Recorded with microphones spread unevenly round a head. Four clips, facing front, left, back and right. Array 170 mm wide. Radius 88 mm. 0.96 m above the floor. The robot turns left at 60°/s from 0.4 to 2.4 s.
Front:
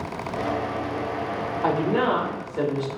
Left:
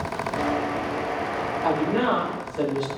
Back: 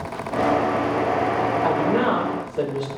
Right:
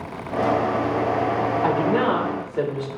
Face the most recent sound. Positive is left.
turn(degrees=-90)